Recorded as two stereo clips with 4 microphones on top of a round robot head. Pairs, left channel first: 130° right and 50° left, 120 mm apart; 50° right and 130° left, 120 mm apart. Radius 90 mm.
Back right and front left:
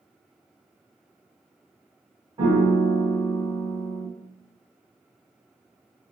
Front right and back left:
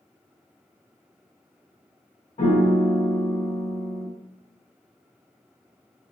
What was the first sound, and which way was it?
A piano, 5° right.